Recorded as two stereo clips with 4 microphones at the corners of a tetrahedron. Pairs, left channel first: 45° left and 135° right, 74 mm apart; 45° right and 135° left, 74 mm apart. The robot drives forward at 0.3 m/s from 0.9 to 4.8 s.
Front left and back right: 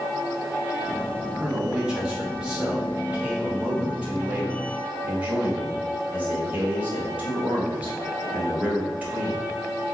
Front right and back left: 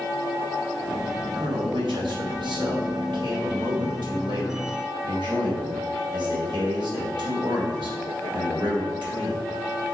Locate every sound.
1.4 s a man speaking: 145° left, 2.5 m; by 9.4 s 155° left, 3.5 m